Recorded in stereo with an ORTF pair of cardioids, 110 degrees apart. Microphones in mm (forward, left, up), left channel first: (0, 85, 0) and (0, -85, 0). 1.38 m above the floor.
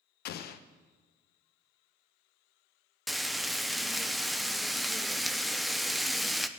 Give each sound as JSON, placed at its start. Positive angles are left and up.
{"t": 0.2, "sound": "an explosion", "azimuth_deg": 70, "distance_m": 0.9}
{"t": 3.1, "sound": "frying", "azimuth_deg": 0, "distance_m": 0.7}